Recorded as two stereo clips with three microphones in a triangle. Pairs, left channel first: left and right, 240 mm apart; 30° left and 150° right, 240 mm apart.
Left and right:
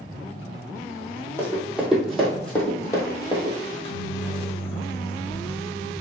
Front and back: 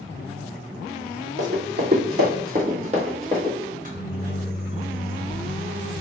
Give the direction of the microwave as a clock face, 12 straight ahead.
7 o'clock.